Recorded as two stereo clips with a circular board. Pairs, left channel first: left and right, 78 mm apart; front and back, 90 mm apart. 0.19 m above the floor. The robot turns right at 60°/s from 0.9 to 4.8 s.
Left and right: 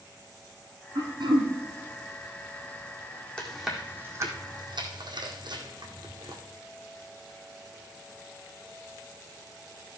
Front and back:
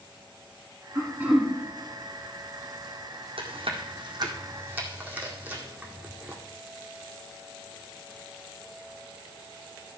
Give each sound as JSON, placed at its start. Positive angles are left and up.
{"t": 0.9, "sound": "throat clearing", "azimuth_deg": -125, "distance_m": 2.0}
{"t": 3.4, "sound": "chewing", "azimuth_deg": 165, "distance_m": 1.9}